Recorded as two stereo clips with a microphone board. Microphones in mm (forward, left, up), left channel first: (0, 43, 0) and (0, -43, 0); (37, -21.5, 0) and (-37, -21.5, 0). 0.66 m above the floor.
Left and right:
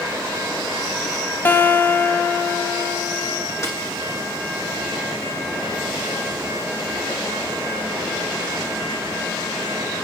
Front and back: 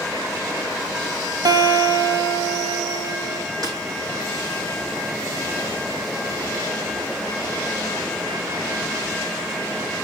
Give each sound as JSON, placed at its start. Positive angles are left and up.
{"t": 1.4, "sound": "a guitar", "azimuth_deg": 155, "distance_m": 1.7}
{"t": 3.6, "sound": "a snare drum", "azimuth_deg": 145, "distance_m": 5.0}